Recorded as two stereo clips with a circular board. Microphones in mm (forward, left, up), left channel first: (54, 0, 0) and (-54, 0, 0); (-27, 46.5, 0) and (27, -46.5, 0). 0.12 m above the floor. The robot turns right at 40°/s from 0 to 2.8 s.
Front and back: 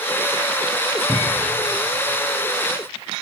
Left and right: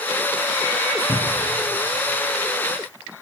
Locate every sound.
1.1 s a cupboard door: 70° left, 1.7 m; by 1.6 s 90° left, 1.7 m